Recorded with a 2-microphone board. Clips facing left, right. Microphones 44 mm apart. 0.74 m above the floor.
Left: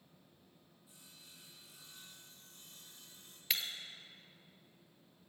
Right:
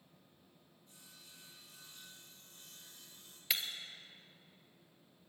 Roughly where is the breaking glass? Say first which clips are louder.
Even; centre.